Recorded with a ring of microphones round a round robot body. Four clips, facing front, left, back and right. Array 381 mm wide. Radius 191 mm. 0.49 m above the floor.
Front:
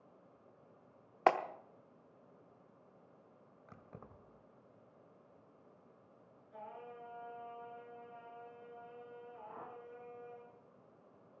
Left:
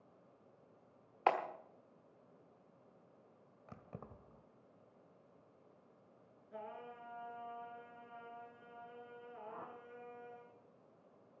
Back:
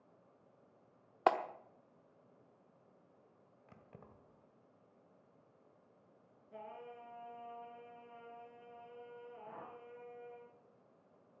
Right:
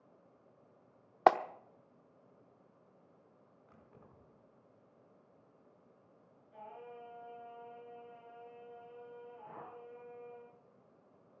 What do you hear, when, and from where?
1.3 s a clap: 85° right, 1.0 m
3.7 s keys jangling: 80° left, 1.5 m
6.5 s singing: 135° left, 4.5 m
9.4 s a whoosh: 120° right, 9 m